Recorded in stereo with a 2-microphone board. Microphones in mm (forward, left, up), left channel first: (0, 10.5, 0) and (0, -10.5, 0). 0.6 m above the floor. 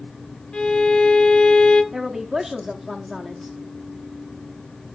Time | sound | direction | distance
0.5 | a violin | 50° left (ahead or behind) | 0.8 m
1.9 | a woman speaking | 20° right (ahead or behind) | 0.8 m